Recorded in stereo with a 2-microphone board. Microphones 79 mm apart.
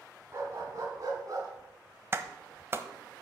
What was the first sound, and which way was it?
A dog barking, 30° right (ahead or behind).